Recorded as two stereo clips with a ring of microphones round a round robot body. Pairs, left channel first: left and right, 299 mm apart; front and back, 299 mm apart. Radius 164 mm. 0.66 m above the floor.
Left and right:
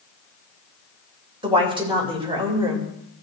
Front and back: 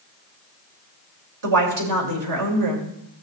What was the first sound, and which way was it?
A woman speaking, 160° right.